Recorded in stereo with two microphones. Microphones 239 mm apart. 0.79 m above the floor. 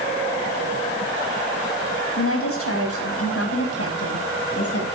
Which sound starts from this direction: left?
A woman speaking, at 2.2 s.